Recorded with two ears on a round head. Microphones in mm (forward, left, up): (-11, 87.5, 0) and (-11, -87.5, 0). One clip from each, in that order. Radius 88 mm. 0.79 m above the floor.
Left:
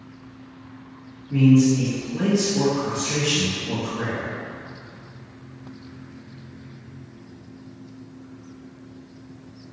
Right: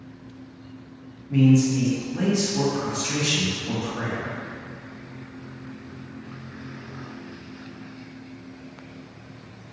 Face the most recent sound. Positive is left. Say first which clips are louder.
# left 2 dB
turn(degrees=-65)  # may be behind; listen again after turning